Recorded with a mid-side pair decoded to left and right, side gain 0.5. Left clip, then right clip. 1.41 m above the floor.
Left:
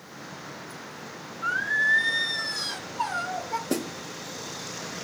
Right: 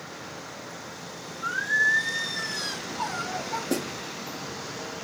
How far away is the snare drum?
About 0.8 m.